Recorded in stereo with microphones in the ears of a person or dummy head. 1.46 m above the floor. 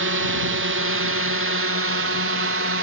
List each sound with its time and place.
0.0 s a drone: 60° right (ahead or behind); by 2.8 s 65° right (ahead or behind)